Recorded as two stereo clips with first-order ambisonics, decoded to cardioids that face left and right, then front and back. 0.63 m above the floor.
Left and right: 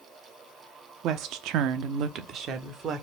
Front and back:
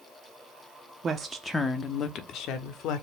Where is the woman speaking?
115° right, 0.7 m; by 3.0 s 30° right, 1.4 m.